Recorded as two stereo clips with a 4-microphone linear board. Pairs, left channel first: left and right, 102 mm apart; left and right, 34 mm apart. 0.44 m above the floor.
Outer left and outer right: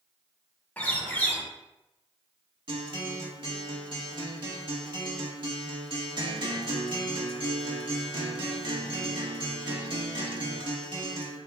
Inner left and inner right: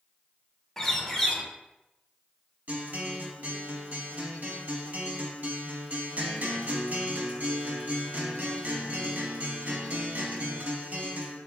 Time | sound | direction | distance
0.8 | a bird | 15° left (ahead or behind) | 0.5 m
2.7 | a guitar | 50° right (ahead or behind) | 0.7 m